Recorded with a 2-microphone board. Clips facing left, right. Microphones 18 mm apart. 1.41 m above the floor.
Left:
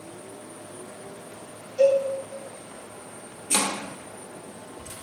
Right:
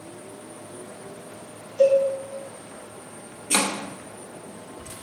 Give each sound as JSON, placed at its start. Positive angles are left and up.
{"t": 1.8, "sound": "a cowbell", "side_deg": 55, "distance_m": 3.5}
{"t": 3.5, "sound": "chopping", "side_deg": -25, "distance_m": 0.9}